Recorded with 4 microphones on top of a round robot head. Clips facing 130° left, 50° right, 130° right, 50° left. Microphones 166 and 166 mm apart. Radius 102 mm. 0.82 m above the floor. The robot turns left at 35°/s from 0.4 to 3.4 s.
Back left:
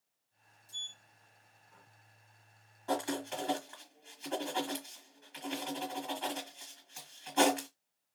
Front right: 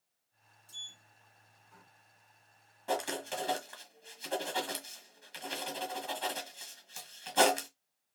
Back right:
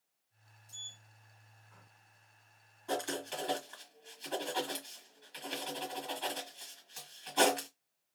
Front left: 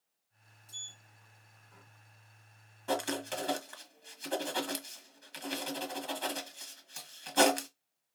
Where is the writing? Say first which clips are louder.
Even, front left 3 dB; 25° left, 1.3 m; by 7.7 s 10° left, 1.3 m.